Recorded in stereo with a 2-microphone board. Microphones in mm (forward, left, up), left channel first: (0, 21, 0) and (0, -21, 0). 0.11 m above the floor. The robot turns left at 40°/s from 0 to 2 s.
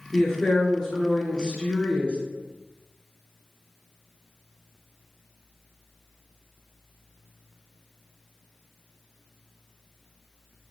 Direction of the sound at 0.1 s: 5° left (ahead or behind).